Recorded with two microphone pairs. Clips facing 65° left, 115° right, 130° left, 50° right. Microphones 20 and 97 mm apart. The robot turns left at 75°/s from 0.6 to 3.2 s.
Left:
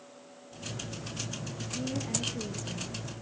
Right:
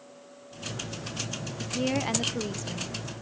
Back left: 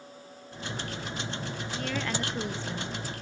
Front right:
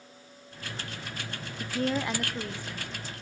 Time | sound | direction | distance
1.6 | a woman speaking | 85° right | 0.8 m